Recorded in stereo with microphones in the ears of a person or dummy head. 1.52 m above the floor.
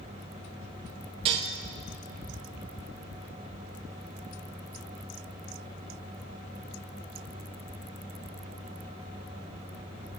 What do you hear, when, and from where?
1.2 s dishes clattering: 30° right (ahead or behind), 0.9 m